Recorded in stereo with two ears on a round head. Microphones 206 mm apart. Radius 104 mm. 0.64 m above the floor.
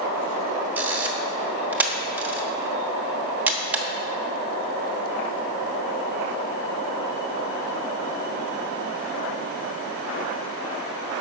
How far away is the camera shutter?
About 1.1 m.